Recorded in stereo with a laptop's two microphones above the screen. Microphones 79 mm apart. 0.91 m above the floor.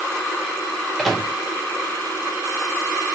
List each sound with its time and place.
1.0 s a microwave: 5° left (ahead or behind), 0.6 m